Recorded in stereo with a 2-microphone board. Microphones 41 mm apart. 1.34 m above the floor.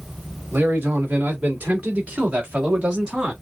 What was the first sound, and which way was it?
A man speaking, 50° right (ahead or behind).